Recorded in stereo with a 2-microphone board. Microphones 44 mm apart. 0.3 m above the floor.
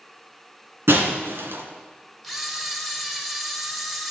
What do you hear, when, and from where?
0.9 s breaking glass: 75° right (ahead or behind), 1.8 m
2.2 s a camera shutter: centre (ahead or behind), 1.3 m